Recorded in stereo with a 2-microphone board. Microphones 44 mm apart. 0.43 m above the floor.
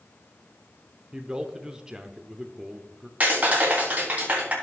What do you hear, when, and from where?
1.1 s a man speaking: 15° right (ahead or behind), 0.7 m
3.2 s a clap: 35° right (ahead or behind), 3.5 m